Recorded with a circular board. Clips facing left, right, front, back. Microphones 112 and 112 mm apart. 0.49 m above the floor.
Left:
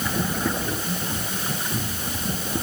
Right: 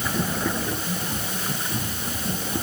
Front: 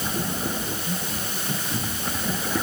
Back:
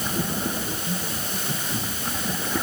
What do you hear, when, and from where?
Only background noise.